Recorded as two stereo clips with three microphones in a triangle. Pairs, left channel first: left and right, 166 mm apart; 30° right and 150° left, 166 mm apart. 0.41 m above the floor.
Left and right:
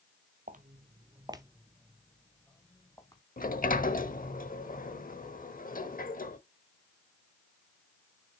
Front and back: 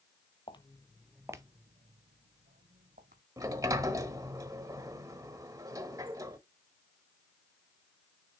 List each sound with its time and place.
0.5 s footsteps: 85° right, 0.7 m; by 3.2 s 155° left, 1.3 m
3.4 s a sliding door: 85° left, 0.7 m